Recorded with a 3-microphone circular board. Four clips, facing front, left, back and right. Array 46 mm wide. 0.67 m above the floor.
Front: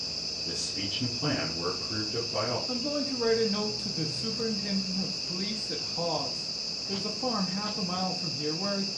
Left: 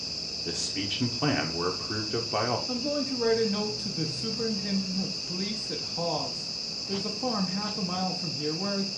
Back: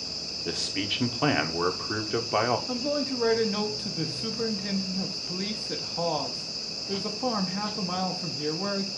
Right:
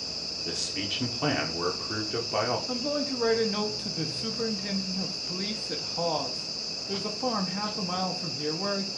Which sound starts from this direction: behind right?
A man speaking, at 2.7 s.